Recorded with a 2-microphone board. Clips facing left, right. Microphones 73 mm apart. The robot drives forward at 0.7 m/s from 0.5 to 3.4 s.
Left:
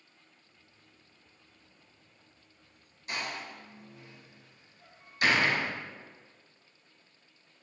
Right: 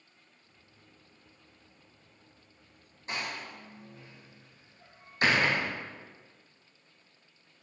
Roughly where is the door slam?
Right.